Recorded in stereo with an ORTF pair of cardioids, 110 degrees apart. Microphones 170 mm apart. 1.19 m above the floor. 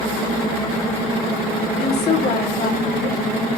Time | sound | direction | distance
1.8 | a woman speaking | 65° left | 4.5 m